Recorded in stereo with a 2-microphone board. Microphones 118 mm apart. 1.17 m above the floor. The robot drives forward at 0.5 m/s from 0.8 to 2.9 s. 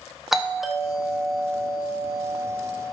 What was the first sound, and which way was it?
A doorbell, centre (ahead or behind).